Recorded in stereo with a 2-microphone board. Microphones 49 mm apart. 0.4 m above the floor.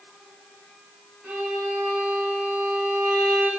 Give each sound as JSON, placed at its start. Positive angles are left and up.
{"t": 1.2, "sound": "a violin", "side_deg": -25, "distance_m": 1.1}